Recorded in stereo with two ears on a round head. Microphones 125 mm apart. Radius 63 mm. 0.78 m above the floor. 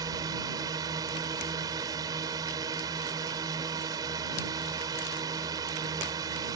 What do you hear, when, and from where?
0.0 s a drone: 30° right (ahead or behind)